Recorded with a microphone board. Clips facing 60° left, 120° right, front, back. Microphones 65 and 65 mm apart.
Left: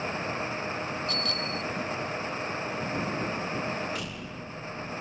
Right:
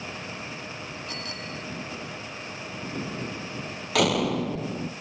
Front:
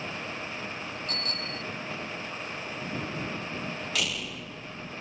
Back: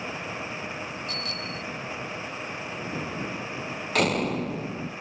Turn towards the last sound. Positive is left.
turn(degrees=-135)